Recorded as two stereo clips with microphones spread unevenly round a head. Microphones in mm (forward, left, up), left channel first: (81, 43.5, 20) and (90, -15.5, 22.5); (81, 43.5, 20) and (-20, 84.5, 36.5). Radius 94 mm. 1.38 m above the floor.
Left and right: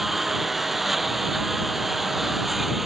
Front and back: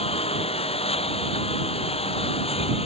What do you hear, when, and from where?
0.0 s a lawn mower: 5° left